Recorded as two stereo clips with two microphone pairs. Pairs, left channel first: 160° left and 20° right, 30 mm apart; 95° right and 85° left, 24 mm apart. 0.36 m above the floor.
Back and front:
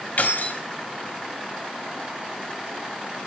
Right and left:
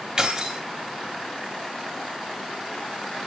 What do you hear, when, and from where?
0.2 s keys jangling: 140° left, 1.5 m